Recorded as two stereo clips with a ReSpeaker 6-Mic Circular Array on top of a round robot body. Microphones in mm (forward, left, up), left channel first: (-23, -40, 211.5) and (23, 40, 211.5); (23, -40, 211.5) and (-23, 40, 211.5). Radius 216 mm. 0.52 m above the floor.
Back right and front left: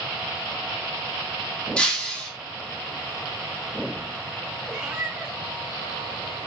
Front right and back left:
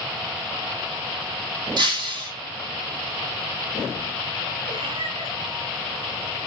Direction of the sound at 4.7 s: 140° left.